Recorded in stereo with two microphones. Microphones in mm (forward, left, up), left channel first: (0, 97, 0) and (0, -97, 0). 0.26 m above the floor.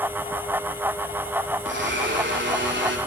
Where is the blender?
70° right (ahead or behind), 9 m.